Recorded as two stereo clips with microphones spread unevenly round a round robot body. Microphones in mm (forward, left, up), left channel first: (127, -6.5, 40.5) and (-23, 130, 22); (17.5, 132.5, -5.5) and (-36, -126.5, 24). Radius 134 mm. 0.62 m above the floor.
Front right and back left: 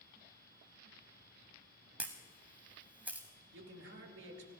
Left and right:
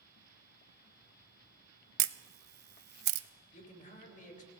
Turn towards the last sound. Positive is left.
turn(degrees=135)